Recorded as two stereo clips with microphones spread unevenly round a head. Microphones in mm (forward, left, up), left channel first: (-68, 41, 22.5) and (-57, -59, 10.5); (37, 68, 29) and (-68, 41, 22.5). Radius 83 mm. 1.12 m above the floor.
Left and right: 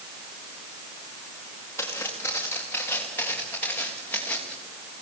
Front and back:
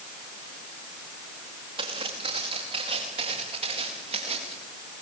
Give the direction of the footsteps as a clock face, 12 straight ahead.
7 o'clock.